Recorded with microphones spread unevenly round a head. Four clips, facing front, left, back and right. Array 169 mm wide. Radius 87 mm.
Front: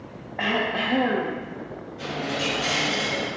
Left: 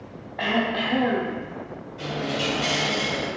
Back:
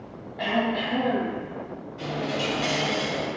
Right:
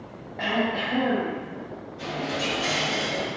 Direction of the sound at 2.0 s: 120° left.